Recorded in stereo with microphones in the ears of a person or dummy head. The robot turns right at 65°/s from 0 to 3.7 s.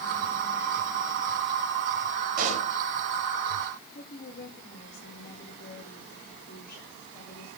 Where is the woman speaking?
50° left (ahead or behind), 4.5 m.